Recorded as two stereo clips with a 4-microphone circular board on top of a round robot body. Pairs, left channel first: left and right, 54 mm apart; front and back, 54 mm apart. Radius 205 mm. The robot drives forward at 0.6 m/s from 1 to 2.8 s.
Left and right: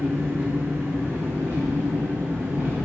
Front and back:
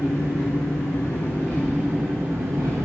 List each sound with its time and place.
0.0 s an engine running: 30° right, 0.8 m; by 2.9 s 155° right, 1.0 m